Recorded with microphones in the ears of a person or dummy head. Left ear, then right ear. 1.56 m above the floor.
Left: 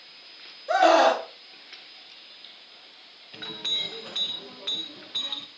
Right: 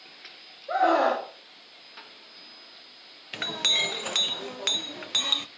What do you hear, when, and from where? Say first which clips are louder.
0.7 s a scream: left 4 dB; 80° left, 2.5 m
3.3 s a clink: right 5 dB; 30° right (ahead or behind), 0.7 m